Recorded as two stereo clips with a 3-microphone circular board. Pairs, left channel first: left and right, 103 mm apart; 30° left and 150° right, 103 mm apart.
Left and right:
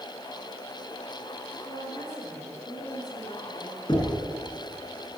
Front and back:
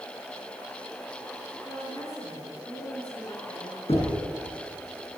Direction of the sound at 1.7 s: 85° left.